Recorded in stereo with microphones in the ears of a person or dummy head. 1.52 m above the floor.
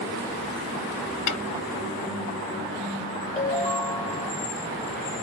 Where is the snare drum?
85° left, 0.9 m.